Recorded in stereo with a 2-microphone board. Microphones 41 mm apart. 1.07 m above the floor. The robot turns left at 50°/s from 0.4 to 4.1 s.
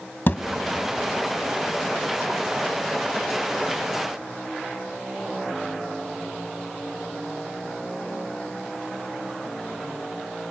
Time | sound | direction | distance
0.3 | a thud | 55° left (ahead or behind) | 1.5 m